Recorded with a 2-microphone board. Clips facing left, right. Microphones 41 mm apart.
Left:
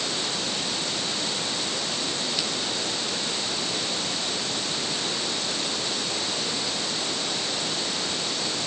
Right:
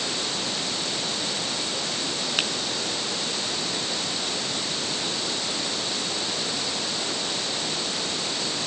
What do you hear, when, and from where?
2.4 s a finger snap: 50° right (ahead or behind)